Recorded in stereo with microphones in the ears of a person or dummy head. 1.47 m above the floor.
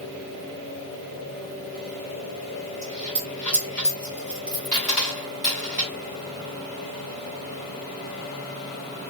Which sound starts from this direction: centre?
A dropped coin, at 2.8 s.